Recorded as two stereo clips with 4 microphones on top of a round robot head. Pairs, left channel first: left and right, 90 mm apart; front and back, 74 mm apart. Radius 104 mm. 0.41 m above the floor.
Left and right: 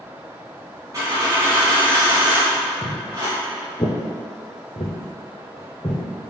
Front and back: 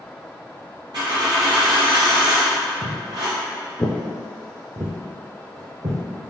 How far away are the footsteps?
About 0.8 m.